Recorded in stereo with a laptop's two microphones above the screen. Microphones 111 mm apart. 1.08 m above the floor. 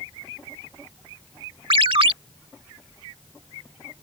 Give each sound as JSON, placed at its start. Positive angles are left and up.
{"t": 1.7, "sound": "a ringtone", "side_deg": -55}